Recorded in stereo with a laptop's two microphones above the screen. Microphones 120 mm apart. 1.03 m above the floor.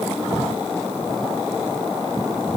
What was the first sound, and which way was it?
Only background noise.